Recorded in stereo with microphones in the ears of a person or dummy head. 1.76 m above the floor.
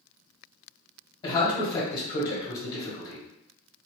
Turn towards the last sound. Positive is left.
turn(degrees=20)  # may be behind; listen again after turning